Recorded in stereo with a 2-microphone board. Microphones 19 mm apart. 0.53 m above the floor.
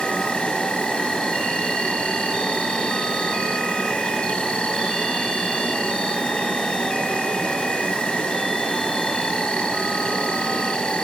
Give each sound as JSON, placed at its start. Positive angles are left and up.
{"t": 0.0, "sound": "an insect", "side_deg": 85, "distance_m": 1.2}